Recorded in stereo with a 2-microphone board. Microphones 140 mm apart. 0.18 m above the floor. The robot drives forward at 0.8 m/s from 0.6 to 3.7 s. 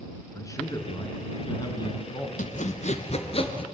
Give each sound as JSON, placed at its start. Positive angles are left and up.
{"t": 0.3, "sound": "a man speaking", "side_deg": 25, "distance_m": 2.0}
{"t": 2.4, "sound": "sawing", "side_deg": 65, "distance_m": 1.1}